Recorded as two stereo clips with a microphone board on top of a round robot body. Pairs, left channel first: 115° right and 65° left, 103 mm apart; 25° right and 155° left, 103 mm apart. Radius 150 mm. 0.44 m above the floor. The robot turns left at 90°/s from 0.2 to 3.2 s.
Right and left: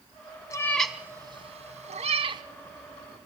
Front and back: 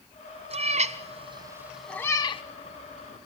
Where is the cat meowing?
175° right, 1.2 m; by 2.4 s 15° left, 1.2 m.